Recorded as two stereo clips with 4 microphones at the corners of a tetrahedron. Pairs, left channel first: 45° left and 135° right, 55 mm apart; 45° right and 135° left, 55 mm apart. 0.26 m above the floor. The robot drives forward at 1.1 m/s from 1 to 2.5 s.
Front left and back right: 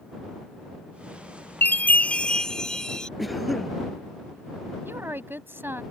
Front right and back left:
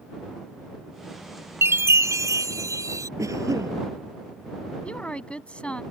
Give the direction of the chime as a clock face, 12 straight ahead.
9 o'clock.